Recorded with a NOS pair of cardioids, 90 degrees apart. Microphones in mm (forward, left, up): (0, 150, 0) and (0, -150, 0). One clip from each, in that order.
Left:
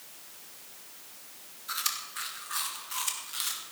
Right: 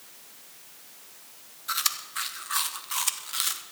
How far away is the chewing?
About 1.6 m.